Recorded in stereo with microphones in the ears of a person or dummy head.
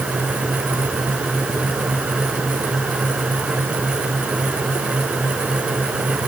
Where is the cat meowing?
I don't hear a cat meowing.